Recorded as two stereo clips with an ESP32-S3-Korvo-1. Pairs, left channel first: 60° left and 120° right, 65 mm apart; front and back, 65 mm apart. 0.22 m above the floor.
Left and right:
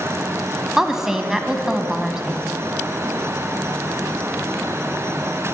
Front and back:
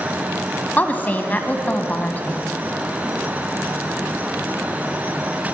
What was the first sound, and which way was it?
A woman speaking, 45° right.